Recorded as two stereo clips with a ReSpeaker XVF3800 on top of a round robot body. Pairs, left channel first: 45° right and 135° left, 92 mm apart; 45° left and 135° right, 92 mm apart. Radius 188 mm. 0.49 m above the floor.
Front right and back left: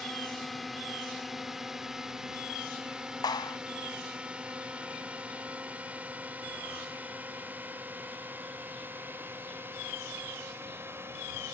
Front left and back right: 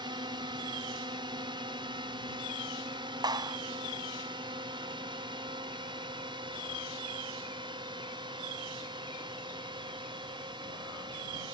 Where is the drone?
135° right; by 11.5 s 165° right.